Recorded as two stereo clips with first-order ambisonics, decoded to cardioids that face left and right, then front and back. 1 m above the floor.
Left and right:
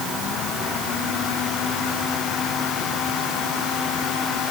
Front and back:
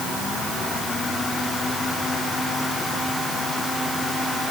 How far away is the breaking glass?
I don't hear breaking glass.